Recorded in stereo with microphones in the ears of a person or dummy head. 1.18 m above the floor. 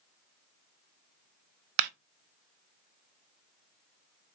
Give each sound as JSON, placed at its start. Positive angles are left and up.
{"t": 1.8, "sound": "a clap", "side_deg": -55, "distance_m": 0.5}